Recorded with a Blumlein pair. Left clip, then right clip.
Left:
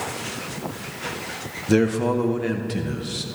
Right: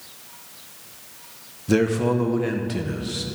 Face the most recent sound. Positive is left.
turn(degrees=5)